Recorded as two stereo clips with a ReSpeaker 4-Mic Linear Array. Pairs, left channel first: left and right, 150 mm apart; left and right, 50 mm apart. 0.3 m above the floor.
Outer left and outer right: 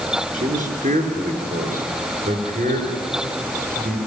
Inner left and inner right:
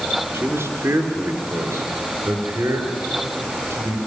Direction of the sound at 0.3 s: 65° right (ahead or behind).